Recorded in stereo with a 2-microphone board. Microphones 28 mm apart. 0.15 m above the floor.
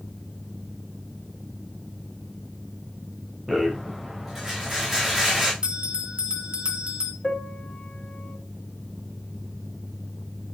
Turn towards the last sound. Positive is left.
turn(degrees=40)  # may be behind; listen again after turning